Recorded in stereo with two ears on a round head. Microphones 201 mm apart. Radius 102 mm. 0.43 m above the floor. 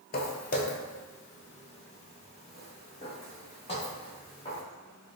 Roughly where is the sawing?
No sawing in this recording.